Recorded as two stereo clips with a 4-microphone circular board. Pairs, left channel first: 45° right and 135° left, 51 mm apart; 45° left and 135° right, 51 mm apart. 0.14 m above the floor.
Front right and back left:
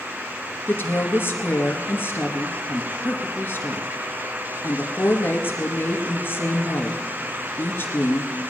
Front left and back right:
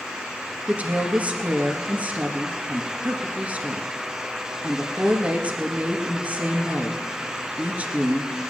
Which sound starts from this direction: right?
A woman speaking, at 0.7 s.